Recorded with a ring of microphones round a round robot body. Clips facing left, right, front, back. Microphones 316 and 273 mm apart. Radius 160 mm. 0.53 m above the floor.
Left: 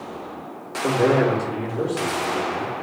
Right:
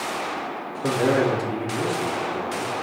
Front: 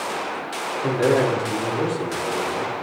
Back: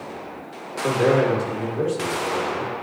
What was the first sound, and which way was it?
A man speaking, 15° right.